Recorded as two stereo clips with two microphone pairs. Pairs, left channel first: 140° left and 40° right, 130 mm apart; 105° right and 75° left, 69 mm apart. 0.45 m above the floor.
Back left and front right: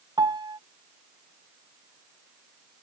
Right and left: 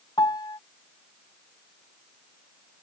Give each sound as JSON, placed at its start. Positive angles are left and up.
{"t": 0.2, "sound": "a piano", "azimuth_deg": -100}